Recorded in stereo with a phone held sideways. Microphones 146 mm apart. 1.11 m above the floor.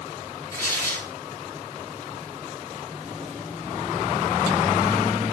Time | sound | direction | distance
0.5 | tearing paper | 20° left (ahead or behind) | 4 m